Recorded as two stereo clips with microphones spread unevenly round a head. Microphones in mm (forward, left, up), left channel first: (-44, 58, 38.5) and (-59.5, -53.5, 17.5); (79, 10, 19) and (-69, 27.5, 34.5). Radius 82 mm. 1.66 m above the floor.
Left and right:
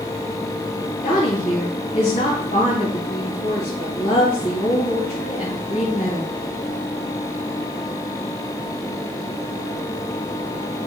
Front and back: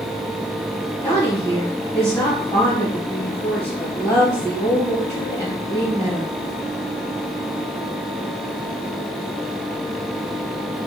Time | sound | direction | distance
1.0 | a woman speaking | 65° left | 1.6 m